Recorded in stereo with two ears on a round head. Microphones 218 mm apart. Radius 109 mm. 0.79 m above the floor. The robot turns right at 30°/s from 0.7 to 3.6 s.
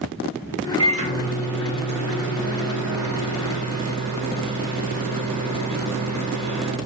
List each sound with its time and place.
0.8 s a microwave: 160° right, 1.1 m; by 6.8 s 75° right, 1.1 m